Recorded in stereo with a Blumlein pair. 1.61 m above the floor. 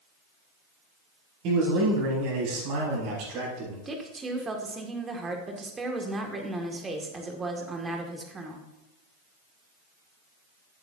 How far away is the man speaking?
About 5 m.